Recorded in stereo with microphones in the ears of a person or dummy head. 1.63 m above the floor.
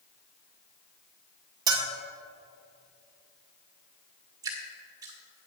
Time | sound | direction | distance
1.7 | a bell | 25° right (ahead or behind) | 1.1 m
4.4 | dripping | 20° right (ahead or behind) | 1.3 m